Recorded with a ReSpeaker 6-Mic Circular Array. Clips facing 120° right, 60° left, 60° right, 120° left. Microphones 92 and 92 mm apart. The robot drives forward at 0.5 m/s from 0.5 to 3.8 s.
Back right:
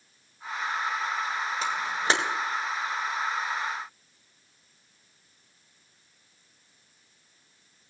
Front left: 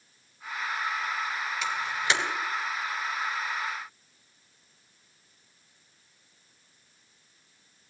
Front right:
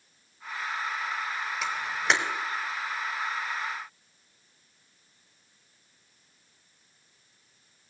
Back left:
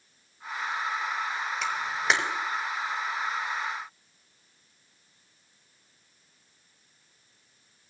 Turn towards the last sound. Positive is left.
turn(degrees=-165)